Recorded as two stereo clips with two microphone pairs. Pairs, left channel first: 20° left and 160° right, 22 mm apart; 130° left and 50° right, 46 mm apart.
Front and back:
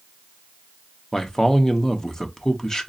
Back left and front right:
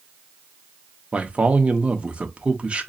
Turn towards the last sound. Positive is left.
turn(degrees=-10)